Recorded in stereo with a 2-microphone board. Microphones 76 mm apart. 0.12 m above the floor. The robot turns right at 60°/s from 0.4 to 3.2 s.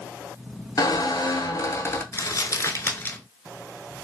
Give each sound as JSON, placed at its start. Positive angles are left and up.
{"t": 0.8, "sound": "a squeak", "azimuth_deg": 75, "distance_m": 0.6}
{"t": 2.1, "sound": "crumpling", "side_deg": 50, "distance_m": 0.6}